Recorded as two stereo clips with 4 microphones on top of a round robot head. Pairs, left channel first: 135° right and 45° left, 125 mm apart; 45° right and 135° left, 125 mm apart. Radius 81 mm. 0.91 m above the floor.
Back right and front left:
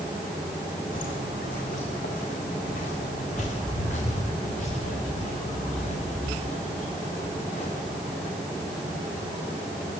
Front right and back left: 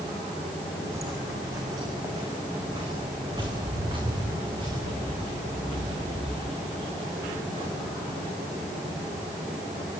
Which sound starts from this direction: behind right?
Footsteps, at 0.9 s.